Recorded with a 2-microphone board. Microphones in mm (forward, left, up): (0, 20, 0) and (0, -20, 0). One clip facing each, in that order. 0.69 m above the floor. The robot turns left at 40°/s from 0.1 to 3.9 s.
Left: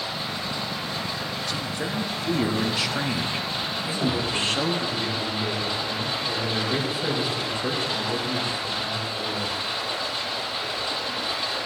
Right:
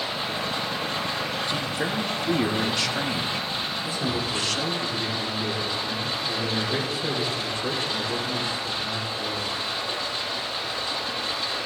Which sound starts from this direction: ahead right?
Running water, at 0.0 s.